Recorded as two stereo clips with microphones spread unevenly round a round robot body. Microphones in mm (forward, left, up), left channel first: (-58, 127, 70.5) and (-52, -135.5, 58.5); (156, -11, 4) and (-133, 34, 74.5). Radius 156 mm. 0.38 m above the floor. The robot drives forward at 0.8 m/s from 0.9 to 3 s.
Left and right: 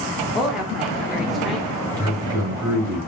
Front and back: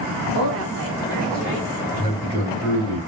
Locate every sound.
0.3 s a woman speaking: 170° right, 1.0 m; by 1.8 s 175° right, 1.5 m
1.9 s a man speaking: 165° right, 3 m